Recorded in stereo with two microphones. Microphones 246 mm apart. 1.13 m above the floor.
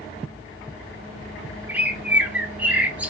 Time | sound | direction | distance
1.7 | a bird | 5° right (ahead or behind) | 0.5 m